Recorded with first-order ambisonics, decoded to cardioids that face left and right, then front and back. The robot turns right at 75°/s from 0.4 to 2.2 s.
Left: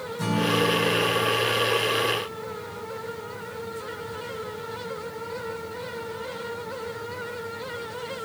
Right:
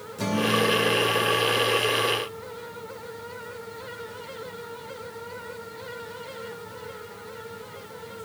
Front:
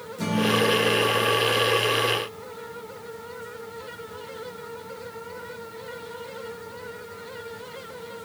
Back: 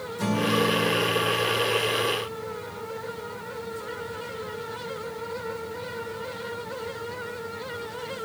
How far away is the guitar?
About 1.5 m.